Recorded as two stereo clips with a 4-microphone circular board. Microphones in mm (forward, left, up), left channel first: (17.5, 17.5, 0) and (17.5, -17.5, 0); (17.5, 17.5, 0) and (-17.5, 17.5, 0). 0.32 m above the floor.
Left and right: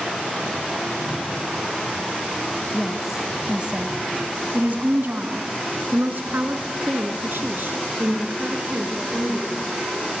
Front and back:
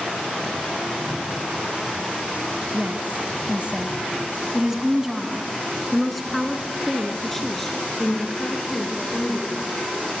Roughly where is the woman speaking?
Behind.